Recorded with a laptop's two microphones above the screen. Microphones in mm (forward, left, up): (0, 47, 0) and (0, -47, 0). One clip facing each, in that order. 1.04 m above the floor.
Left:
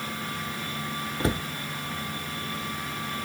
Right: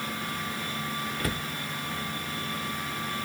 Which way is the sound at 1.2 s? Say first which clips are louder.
Left 8 dB; 25° left (ahead or behind).